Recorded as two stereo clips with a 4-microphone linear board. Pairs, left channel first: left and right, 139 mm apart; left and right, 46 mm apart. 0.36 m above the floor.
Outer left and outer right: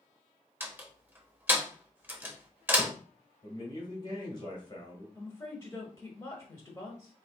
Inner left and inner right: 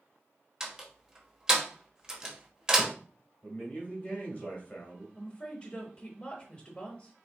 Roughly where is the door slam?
Centre.